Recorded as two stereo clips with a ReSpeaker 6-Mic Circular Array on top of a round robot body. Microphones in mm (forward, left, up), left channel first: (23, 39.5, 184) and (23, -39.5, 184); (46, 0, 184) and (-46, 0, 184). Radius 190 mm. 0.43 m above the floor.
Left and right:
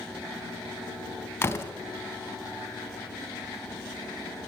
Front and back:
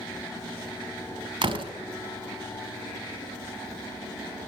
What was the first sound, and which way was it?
A door slam, 150° left.